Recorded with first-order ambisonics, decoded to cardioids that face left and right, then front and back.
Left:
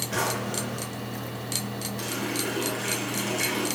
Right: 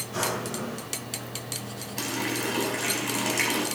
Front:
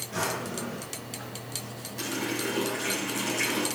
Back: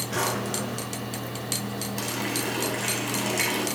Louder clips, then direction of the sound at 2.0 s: Right 2 dB, back 1 dB; 125° right.